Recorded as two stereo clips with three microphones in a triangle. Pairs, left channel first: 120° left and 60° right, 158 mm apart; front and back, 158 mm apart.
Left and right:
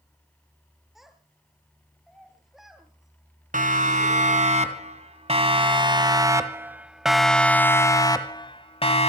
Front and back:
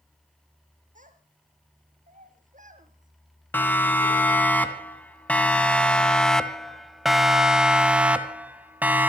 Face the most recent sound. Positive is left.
turn(degrees=105)